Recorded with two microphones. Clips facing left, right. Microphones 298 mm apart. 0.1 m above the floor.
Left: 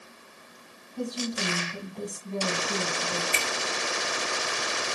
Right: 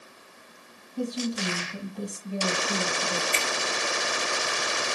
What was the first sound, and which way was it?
A woman speaking, 10° right (ahead or behind).